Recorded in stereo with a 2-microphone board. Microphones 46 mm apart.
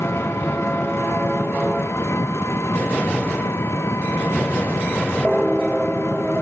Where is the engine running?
65° left (ahead or behind).